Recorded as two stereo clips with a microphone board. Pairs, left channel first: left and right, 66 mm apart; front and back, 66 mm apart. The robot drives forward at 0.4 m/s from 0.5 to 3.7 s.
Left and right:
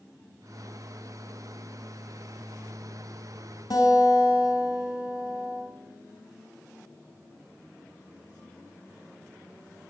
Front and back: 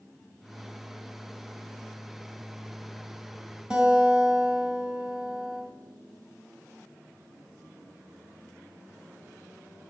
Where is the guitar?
100° left, 3.5 m.